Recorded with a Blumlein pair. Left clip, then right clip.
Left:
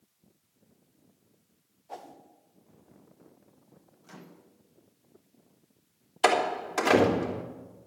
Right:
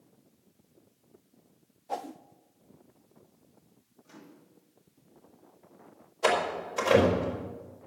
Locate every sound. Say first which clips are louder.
1.9 s a whoosh: right 8 dB; 20° right, 0.7 m
4.0 s a microwave: left 2 dB; 40° left, 1.7 m
6.2 s a door slam: left 2 dB; 45° left, 3 m